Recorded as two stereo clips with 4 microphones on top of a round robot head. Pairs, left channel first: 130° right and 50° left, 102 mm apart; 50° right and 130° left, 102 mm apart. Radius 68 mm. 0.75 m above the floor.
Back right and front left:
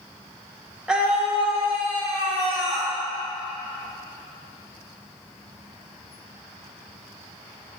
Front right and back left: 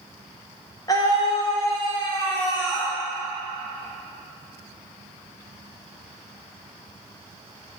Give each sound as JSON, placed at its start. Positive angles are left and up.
{"t": 0.9, "sound": "a scream", "azimuth_deg": -30, "distance_m": 1.2}